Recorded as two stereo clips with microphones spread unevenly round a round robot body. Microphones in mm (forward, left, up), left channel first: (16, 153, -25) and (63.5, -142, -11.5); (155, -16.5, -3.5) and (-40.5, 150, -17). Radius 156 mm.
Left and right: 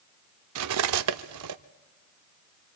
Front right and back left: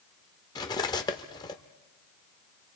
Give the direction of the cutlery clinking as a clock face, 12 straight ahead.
4 o'clock.